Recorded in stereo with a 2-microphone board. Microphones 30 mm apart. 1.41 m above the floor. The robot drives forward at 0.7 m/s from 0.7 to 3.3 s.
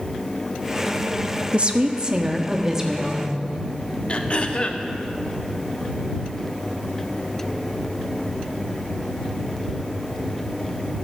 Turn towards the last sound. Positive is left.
turn(degrees=40)  # may be behind; listen again after turning